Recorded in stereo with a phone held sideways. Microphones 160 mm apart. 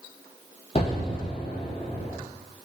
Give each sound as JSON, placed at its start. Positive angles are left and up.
{"t": 0.8, "sound": "an explosion", "side_deg": 40, "distance_m": 0.9}